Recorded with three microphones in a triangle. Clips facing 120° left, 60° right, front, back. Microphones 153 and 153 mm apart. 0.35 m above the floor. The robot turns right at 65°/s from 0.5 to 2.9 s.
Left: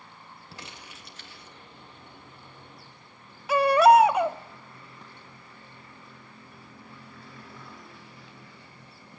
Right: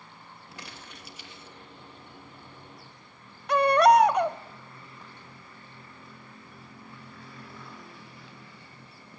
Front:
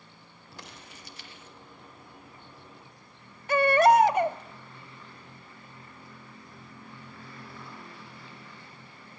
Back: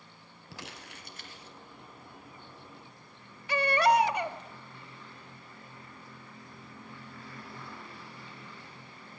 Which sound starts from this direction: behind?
Crumpling, at 0.5 s.